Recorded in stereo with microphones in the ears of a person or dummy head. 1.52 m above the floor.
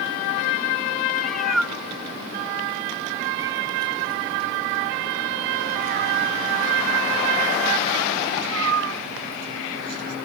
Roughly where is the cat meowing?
Centre.